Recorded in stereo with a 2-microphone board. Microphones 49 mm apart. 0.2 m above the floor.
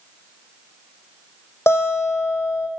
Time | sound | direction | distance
1.7 | a guitar | 55° left (ahead or behind) | 7 m